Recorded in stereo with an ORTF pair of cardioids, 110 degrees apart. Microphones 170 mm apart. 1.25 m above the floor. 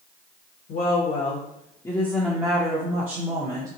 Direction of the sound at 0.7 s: 60° left.